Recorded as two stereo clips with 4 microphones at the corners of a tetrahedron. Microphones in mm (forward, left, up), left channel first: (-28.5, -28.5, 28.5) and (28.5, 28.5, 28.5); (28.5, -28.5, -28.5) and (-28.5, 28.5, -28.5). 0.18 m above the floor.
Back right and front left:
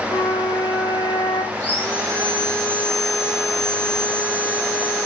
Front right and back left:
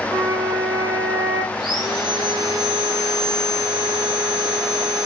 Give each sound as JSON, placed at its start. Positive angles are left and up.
{"t": 0.1, "sound": "a flute", "azimuth_deg": 175, "distance_m": 5.5}
{"t": 1.5, "sound": "sawing", "azimuth_deg": 155, "distance_m": 8.0}